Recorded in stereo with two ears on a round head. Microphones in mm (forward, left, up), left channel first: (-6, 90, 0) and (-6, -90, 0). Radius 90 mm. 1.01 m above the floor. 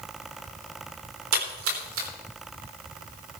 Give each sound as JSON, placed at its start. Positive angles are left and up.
{"t": 1.3, "sound": "a splash", "side_deg": -80, "distance_m": 4.0}